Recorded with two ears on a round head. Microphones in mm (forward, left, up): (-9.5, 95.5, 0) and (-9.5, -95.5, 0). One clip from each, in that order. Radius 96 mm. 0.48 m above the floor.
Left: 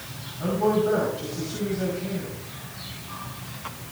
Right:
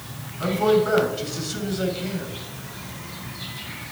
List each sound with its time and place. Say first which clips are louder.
0.4 s a man speaking: right 3 dB; 55° right (ahead or behind), 5.5 m